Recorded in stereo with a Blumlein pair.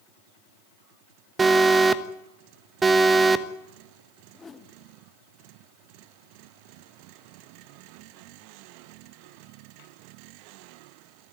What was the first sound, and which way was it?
An alarm, 15° right.